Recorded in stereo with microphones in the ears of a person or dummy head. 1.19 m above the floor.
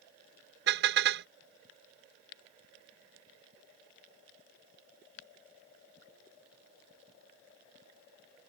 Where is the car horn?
70° right (ahead or behind).